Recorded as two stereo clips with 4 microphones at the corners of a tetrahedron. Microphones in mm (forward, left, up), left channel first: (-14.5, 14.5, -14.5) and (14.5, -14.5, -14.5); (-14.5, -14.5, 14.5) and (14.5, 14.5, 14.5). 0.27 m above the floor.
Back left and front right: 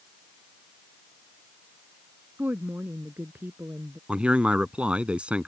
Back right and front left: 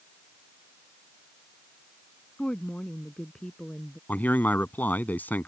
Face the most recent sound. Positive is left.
turn(degrees=-105)